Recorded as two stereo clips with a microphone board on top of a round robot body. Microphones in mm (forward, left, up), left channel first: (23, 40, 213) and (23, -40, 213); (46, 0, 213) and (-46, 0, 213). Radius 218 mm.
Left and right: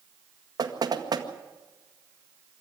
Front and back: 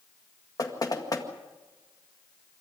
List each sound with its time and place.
0.6 s knocking: 50° right, 2.0 m